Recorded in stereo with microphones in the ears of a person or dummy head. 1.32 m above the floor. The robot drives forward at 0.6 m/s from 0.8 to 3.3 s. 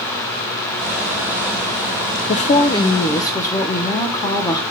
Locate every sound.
2.3 s a woman speaking: 30° left (ahead or behind), 0.5 m; by 4.6 s 15° left (ahead or behind), 1.1 m